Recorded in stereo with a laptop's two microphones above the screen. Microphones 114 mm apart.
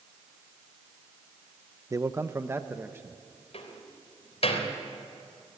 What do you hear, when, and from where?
1.9 s a man speaking: 25° right (ahead or behind), 0.5 m; by 3.2 s 20° right (ahead or behind), 1.2 m
3.5 s a door slam: 65° left (ahead or behind), 3.5 m